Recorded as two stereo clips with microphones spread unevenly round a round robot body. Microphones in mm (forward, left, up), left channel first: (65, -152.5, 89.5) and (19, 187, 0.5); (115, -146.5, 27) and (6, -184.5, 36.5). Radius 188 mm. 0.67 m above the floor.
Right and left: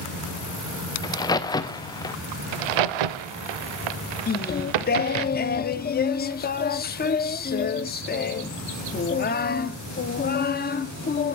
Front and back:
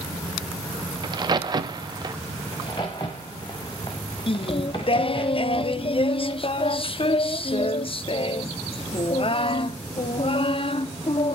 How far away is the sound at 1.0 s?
About 0.8 m.